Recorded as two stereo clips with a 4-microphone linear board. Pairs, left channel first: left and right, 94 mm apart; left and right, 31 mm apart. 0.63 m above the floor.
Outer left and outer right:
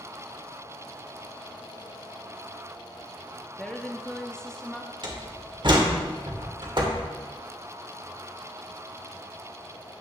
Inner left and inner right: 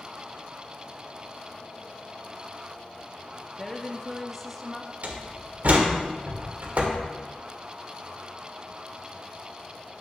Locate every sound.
3.6 s a woman speaking: 10° left (ahead or behind), 0.7 m; by 4.9 s 5° left (ahead or behind), 0.9 m
5.0 s a door slam: 55° right (ahead or behind), 1.4 m